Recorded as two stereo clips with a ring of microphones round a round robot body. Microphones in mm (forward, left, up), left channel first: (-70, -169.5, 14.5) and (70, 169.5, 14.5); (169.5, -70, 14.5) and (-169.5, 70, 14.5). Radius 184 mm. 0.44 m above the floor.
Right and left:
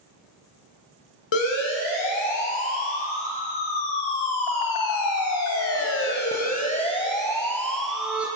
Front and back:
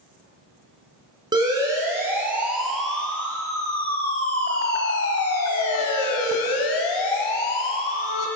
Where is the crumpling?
I don't hear crumpling.